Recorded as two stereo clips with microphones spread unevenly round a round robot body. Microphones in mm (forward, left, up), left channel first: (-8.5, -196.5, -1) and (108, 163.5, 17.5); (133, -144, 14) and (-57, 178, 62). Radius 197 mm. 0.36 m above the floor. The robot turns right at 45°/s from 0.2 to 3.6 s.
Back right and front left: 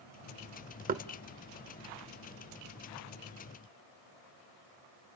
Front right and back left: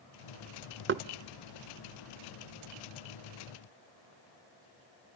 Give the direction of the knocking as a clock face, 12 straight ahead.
8 o'clock.